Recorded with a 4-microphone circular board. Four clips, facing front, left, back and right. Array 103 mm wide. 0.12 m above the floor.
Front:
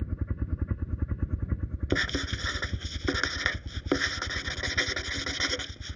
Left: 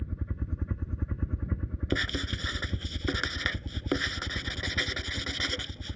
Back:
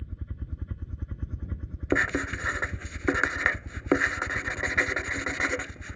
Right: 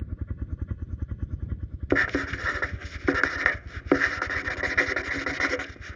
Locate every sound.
0.0 s a helicopter: straight ahead; by 6.0 s 105° left
1.9 s writing: 115° right